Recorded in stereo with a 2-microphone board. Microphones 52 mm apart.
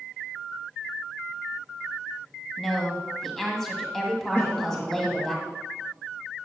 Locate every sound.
2.6 s a woman speaking: 10° left (ahead or behind), 1.8 m
4.3 s a cough: 45° left (ahead or behind), 2.5 m